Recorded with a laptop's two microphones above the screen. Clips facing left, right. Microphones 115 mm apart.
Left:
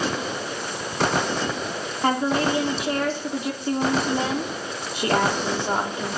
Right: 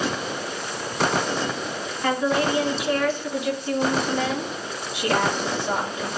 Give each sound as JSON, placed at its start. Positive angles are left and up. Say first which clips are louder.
{"t": 2.0, "sound": "a woman speaking", "louder": "even", "side_deg": 35, "distance_m": 2.0}